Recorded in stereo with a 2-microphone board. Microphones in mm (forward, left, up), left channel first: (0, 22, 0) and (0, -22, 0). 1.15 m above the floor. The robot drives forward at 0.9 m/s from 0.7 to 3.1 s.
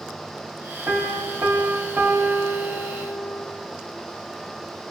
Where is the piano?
65° right (ahead or behind), 3 m; by 3.5 s 70° right (ahead or behind), 3 m.